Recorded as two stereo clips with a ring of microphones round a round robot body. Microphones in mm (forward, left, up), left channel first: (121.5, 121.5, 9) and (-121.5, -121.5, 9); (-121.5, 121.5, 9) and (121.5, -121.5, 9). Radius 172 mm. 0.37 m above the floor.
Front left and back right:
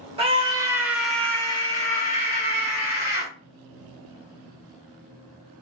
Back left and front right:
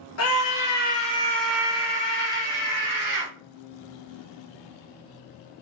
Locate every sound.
0.2 s a scream: 155° left, 1.2 m; by 3.3 s 10° right, 1.6 m